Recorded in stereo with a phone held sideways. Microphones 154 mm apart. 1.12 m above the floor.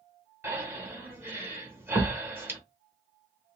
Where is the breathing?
15° right (ahead or behind), 0.8 m.